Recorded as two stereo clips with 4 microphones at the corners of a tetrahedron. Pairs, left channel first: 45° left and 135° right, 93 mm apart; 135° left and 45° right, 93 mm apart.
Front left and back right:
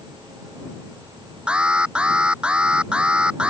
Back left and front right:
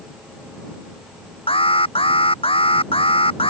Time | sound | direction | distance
1.5 | an alarm | 145° left | ?